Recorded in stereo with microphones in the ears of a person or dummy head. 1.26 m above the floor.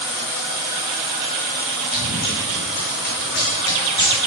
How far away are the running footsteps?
About 3.5 m.